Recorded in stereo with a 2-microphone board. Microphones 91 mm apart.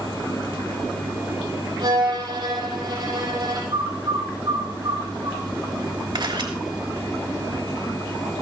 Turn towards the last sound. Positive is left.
turn(degrees=-55)  # may be behind; listen again after turning